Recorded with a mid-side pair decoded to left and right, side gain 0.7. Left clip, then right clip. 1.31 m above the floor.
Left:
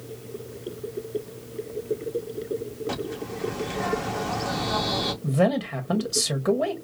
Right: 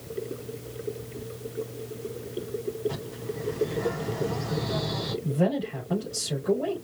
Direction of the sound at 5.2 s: 65° left.